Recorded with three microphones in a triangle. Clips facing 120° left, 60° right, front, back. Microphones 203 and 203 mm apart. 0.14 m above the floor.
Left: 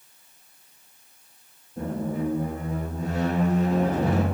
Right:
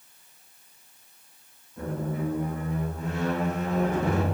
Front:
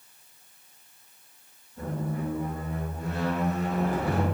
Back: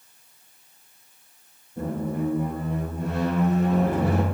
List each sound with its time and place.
1.8 s a squeak: 170° left, 2.5 m